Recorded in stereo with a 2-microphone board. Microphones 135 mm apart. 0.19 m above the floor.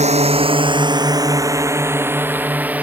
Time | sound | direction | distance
0.0 | a drone | 55° right (ahead or behind) | ?